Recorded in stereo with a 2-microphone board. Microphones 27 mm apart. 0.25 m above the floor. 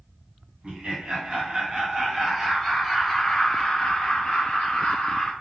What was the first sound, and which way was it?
Laughter, 50° right (ahead or behind).